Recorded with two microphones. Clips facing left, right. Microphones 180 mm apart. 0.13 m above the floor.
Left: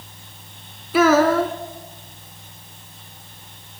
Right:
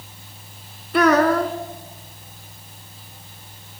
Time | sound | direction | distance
0.9 | a child speaking | 5° left (ahead or behind) | 1.2 m